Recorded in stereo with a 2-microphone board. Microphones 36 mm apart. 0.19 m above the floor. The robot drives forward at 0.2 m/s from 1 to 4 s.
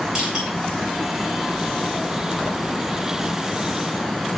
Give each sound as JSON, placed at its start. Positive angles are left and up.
{"t": 0.1, "sound": "crushing", "side_deg": -20, "distance_m": 2.0}